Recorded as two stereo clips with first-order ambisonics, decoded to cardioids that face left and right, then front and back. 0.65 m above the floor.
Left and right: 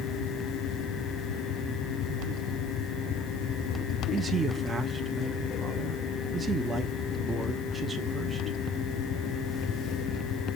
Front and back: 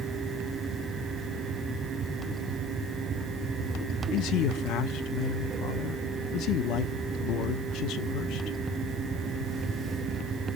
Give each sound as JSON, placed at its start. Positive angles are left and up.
{"t": 4.1, "sound": "a man speaking", "azimuth_deg": -15, "distance_m": 0.8}